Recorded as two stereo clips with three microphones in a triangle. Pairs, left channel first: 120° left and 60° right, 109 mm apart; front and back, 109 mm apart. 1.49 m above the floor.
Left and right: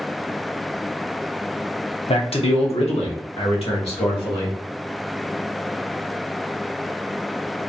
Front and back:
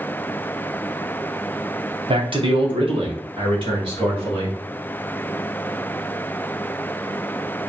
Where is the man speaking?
145° left, 0.8 m; by 4.6 s 140° left, 2 m.